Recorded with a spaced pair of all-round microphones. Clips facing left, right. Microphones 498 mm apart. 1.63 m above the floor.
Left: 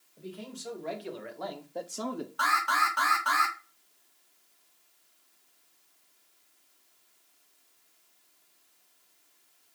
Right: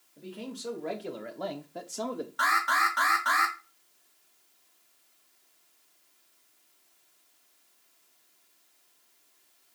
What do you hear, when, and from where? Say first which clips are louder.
0.2 s a man speaking: right 2 dB; 75° right (ahead or behind), 1.8 m; by 2.3 s 25° left (ahead or behind), 0.5 m
2.4 s an alarm: right 1 dB; 40° right (ahead or behind), 1.1 m